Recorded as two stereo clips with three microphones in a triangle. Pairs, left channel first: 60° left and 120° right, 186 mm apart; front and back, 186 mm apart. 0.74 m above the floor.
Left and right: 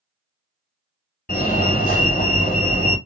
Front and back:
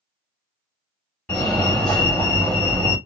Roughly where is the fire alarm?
Left.